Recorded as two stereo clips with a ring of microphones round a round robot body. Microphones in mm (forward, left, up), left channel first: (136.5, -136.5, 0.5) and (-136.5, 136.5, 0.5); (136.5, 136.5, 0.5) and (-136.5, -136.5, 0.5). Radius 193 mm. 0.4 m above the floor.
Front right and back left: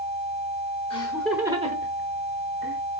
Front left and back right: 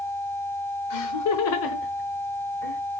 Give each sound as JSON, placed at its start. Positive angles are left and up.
{"t": 0.9, "sound": "laughter", "azimuth_deg": 25, "distance_m": 1.2}